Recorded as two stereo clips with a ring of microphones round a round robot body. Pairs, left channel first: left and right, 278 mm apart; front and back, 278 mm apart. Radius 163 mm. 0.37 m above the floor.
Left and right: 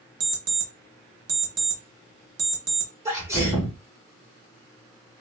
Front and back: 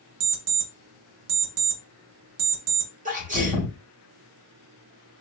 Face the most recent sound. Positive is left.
turn(degrees=-160)